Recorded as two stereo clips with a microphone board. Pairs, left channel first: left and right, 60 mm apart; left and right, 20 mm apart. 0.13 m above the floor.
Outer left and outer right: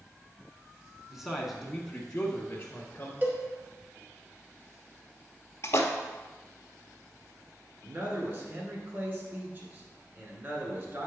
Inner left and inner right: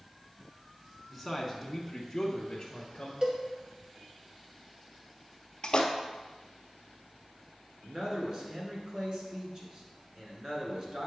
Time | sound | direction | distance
1.1 | a man speaking | 10° right (ahead or behind) | 1.1 m
3.2 | a cowbell | 35° right (ahead or behind) | 1.4 m
5.6 | a splash | 50° left (ahead or behind) | 0.8 m
7.8 | a man speaking | 35° right (ahead or behind) | 1.9 m